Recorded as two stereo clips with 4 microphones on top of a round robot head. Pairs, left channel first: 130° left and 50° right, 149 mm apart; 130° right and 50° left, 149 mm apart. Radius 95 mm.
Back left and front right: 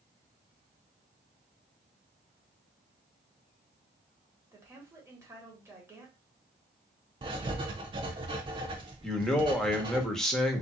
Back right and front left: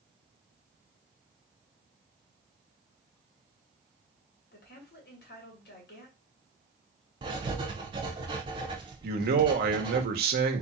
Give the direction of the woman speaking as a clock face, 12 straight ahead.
4 o'clock.